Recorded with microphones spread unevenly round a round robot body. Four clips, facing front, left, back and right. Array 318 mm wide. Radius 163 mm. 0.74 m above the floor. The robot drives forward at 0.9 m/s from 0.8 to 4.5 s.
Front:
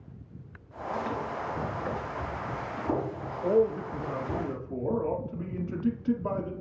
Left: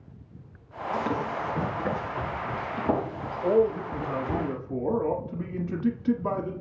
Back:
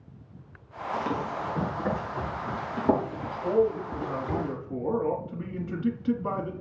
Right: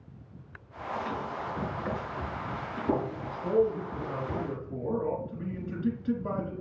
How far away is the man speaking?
About 1.2 m.